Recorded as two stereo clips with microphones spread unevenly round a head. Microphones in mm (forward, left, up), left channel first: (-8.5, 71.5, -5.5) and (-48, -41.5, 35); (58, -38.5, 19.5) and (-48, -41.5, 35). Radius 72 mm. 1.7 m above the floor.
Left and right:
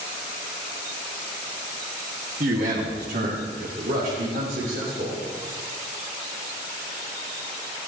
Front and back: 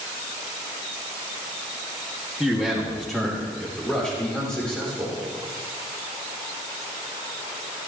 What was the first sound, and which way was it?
A man speaking, 95° right.